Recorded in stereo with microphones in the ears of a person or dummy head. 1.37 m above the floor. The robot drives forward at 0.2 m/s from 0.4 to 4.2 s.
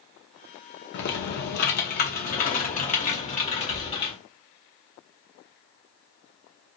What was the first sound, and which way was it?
Typing on a keyboard, 60° left (ahead or behind).